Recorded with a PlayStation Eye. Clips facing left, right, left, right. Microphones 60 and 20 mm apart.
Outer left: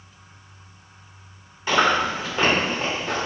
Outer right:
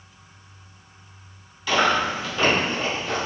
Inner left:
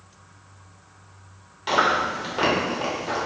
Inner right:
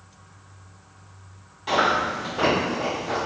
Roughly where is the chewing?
Left.